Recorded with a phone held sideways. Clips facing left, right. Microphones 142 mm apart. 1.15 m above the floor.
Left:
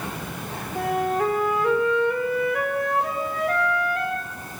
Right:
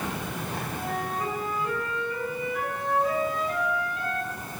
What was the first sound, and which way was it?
A flute, 80° left.